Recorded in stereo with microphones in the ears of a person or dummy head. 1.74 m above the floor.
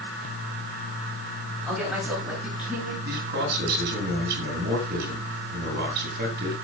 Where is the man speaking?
45° right (ahead or behind), 8.5 m.